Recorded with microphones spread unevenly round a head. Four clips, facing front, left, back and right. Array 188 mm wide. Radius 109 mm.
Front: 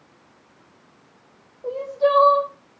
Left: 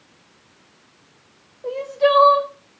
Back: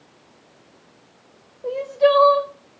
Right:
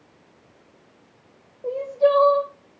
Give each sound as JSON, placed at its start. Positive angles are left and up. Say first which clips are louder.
{"t": 1.6, "sound": "crying", "louder": "left 1 dB, back 3 dB", "azimuth_deg": -155, "distance_m": 0.6}